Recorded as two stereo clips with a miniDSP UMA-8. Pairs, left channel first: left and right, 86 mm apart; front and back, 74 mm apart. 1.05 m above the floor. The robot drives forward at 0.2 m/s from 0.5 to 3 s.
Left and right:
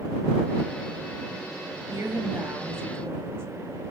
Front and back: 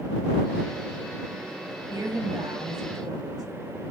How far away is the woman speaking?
About 1.4 m.